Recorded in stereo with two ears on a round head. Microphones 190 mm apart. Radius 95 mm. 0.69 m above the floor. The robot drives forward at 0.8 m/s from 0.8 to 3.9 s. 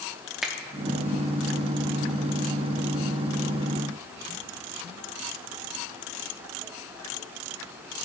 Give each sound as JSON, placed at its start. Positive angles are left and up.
{"t": 0.4, "sound": "a finger snap", "side_deg": 0, "distance_m": 0.8}